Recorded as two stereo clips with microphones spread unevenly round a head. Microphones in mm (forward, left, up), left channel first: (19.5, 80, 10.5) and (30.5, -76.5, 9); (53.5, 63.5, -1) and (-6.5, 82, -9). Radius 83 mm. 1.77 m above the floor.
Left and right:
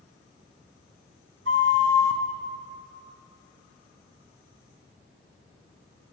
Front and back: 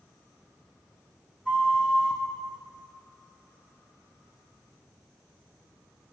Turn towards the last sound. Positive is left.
turn(degrees=-100)